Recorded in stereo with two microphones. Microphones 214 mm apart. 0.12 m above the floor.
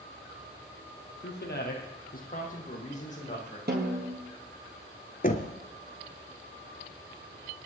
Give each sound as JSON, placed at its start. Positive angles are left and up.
{"t": 1.2, "sound": "a man speaking", "side_deg": 55, "distance_m": 2.5}
{"t": 3.7, "sound": "a snare drum", "side_deg": -50, "distance_m": 2.5}
{"t": 5.2, "sound": "knocking", "side_deg": 40, "distance_m": 1.1}